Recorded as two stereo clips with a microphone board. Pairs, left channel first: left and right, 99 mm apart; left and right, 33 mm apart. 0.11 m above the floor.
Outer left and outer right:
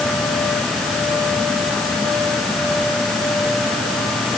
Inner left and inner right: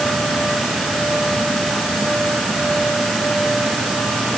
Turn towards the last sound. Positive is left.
No sound to turn to.